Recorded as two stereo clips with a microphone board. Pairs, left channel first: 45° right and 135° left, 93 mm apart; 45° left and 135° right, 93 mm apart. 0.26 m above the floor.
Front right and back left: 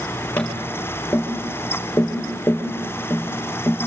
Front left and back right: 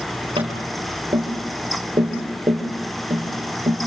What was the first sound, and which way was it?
Tapping, 120° right.